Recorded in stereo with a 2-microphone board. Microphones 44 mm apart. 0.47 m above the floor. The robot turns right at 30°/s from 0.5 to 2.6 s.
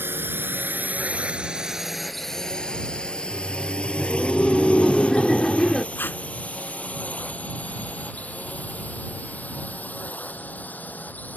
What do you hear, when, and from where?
0.0 s a drone: 60° right (ahead or behind); by 11.4 s 45° left (ahead or behind)
3.2 s laughter: 10° left (ahead or behind)
6.0 s tape being pulled: 55° left (ahead or behind)